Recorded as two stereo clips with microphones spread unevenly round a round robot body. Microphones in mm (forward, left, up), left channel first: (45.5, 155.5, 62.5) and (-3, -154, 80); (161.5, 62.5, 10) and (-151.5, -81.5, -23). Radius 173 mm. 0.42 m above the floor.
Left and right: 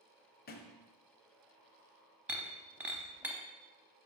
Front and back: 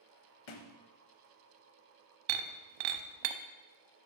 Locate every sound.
0.5 s a thud: 20° left, 0.9 m
2.3 s breaking glass: 175° left, 0.6 m